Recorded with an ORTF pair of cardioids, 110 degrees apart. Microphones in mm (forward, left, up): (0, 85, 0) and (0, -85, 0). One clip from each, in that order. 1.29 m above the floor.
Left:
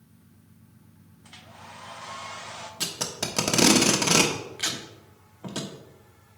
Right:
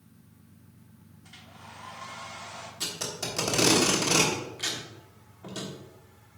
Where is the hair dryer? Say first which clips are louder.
Left 3 dB; 35° left, 1.0 m.